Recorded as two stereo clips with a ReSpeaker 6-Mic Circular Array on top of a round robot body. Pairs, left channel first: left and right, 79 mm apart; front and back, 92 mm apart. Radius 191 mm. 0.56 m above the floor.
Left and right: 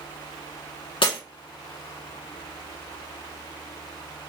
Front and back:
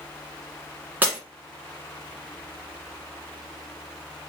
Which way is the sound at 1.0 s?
110° left.